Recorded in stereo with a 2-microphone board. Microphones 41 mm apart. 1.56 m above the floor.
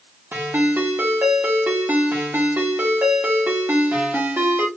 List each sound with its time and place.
0.3 s a ringtone: 60° right (ahead or behind), 1.5 m